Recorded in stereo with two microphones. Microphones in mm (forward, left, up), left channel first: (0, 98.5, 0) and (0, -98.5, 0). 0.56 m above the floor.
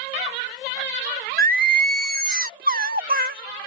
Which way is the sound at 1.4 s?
50° right (ahead or behind).